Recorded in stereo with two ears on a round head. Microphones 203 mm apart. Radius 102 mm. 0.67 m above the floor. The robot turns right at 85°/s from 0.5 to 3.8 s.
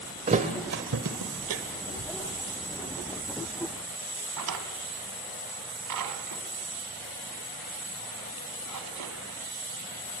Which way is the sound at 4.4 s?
85° right.